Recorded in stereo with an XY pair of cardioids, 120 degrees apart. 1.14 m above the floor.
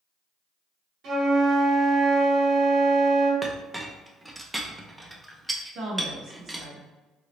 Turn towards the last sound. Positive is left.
turn(degrees=-60)